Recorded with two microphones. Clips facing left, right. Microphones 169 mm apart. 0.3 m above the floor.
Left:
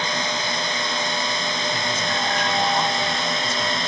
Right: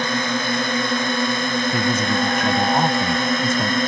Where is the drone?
55° right (ahead or behind); by 3.9 s 50° right (ahead or behind).